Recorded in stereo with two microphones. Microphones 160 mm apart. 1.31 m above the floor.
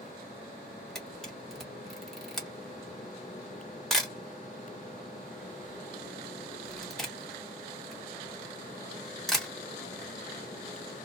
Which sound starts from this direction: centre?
A camera shutter, at 0.9 s.